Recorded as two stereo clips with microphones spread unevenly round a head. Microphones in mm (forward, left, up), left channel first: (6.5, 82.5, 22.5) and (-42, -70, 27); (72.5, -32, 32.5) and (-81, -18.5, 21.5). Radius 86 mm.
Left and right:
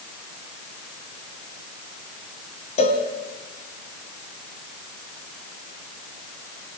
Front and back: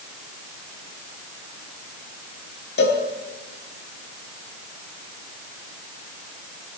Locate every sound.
2.8 s a cowbell: 20° left, 3 m